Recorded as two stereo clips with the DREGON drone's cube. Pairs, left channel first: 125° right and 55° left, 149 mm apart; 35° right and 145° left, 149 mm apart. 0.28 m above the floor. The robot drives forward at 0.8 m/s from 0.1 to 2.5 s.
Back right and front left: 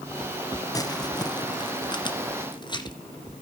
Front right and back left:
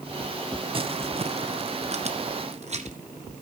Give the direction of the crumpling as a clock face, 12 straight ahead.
6 o'clock.